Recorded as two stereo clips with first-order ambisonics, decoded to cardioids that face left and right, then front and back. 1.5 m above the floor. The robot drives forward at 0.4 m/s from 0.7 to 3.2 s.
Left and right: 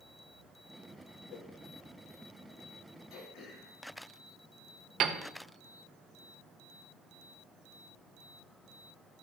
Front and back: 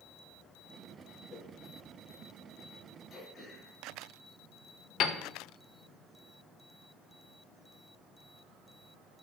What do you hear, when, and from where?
1.3 s a whoosh: 60° left, 1.5 m; by 1.5 s 65° left, 1.5 m
3.1 s throat clearing: 75° left, 3.5 m
5.0 s a piano: 45° right, 0.8 m